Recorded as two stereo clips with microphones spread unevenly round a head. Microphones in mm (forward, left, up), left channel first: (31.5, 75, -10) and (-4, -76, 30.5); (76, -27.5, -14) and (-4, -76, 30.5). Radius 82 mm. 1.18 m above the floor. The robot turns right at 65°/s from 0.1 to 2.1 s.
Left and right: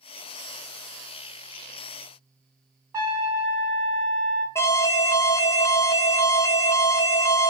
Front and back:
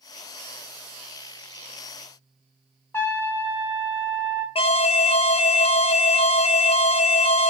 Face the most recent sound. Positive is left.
turn(degrees=-5)